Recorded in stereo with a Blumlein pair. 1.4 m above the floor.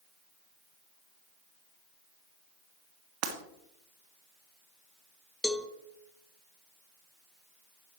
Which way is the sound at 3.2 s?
40° right.